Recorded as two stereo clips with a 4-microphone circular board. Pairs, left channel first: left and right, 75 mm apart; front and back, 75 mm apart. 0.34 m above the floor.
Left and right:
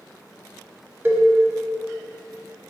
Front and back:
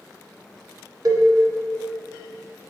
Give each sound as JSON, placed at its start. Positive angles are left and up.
{"t": 1.1, "sound": "a cowbell", "azimuth_deg": -150, "distance_m": 0.5}